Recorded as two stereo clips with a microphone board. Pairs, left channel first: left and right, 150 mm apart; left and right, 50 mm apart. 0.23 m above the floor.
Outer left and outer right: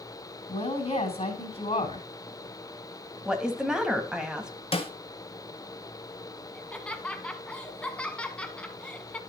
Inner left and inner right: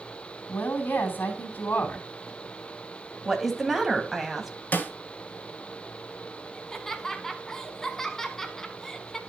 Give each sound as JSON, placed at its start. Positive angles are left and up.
{"t": 0.5, "sound": "a woman speaking", "side_deg": 45, "distance_m": 2.5}
{"t": 3.2, "sound": "a woman speaking", "side_deg": -5, "distance_m": 1.5}
{"t": 4.7, "sound": "a snare drum", "side_deg": 45, "distance_m": 1.4}
{"t": 6.5, "sound": "laughter", "side_deg": 10, "distance_m": 1.7}